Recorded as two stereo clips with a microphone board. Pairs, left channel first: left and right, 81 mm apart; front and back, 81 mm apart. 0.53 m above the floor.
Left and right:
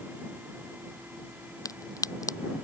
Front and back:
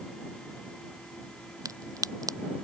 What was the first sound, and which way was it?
A crack, 135° left.